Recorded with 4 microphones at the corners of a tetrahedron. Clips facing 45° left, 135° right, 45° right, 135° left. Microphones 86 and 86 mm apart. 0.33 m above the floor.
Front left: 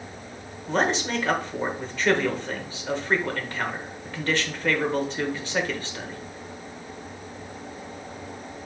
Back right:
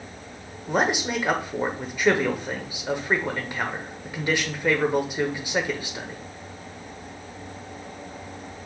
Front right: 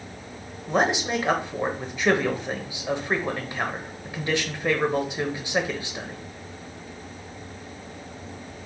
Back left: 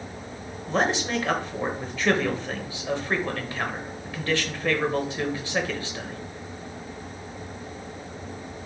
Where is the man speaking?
80° right, 0.9 m.